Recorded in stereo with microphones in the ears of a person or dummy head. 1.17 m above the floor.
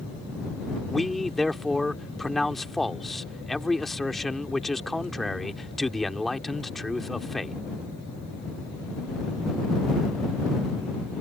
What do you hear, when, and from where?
0.9 s a man speaking: 5° left (ahead or behind)